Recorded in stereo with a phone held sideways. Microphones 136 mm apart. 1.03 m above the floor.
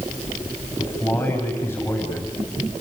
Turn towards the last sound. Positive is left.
turn(degrees=15)  # may be behind; listen again after turning